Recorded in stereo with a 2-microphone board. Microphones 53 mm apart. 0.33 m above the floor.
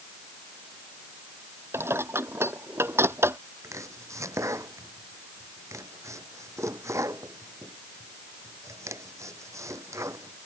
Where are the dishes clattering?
55° right (ahead or behind).